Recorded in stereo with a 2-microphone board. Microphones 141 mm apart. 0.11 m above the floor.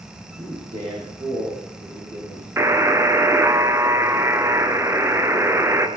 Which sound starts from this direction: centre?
A buzzer, at 2.6 s.